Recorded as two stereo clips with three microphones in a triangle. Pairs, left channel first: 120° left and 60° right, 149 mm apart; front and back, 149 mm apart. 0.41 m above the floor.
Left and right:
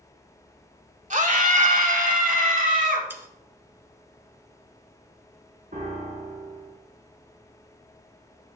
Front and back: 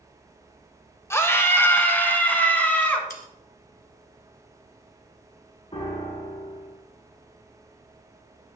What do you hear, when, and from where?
1.1 s a scream: 70° right, 1.3 m; by 3.0 s 80° right, 3 m
3.1 s sawing: 15° left, 1.3 m
5.7 s a piano: 50° right, 3 m